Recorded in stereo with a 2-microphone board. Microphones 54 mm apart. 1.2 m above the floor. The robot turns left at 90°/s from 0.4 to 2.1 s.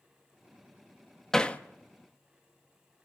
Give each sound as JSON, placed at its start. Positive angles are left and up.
{"t": 1.3, "sound": "hammering", "side_deg": 10, "distance_m": 0.9}